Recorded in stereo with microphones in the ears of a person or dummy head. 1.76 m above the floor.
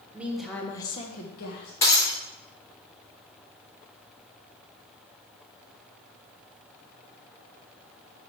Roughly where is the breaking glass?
Left.